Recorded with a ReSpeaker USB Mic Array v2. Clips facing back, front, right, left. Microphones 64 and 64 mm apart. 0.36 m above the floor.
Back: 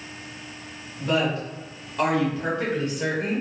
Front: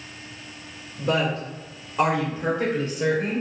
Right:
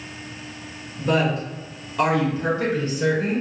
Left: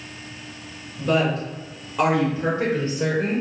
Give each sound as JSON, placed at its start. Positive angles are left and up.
{"t": 1.0, "sound": "a woman speaking", "azimuth_deg": -15, "distance_m": 1.6}